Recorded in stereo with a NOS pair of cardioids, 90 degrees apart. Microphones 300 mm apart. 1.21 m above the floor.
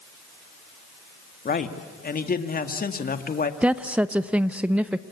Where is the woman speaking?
5° right, 0.8 m.